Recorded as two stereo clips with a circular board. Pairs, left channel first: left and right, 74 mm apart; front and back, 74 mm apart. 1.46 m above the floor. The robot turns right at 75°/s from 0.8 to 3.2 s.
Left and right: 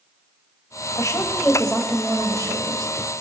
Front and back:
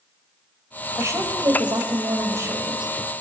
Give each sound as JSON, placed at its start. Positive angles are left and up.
{"t": 0.9, "sound": "a woman speaking", "azimuth_deg": 120, "distance_m": 6.0}